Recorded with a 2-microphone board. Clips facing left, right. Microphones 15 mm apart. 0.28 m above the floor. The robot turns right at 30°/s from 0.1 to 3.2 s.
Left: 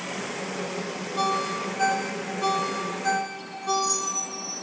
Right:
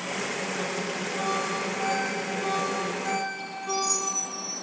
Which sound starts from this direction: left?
A ringtone, at 1.2 s.